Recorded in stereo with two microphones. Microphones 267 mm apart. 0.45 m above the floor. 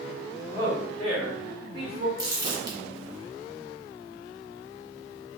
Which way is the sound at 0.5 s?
15° left (ahead or behind).